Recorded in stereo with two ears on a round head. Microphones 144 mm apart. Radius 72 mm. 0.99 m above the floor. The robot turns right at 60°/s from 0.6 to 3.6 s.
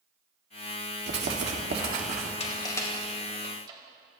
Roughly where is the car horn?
No car horn in this recording.